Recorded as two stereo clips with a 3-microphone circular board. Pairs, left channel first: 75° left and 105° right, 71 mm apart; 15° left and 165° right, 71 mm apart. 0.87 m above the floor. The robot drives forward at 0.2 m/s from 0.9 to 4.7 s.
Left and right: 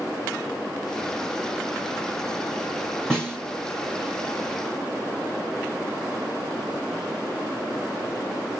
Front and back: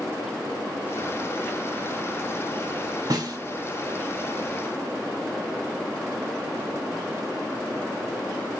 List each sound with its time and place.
3.1 s a snare drum: 160° left, 1.6 m